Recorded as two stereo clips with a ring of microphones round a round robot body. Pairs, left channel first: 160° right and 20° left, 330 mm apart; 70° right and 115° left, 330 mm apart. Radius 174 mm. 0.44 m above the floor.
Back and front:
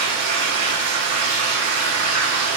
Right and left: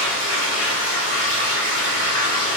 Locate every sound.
0.0 s running water: 10° left, 1.7 m